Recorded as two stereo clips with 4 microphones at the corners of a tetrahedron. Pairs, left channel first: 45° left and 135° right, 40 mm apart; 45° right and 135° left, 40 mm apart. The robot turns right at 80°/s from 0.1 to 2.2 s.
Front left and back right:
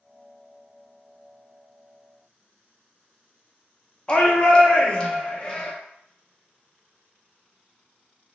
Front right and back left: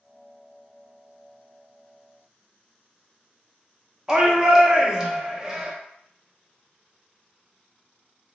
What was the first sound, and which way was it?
A shout, 80° left.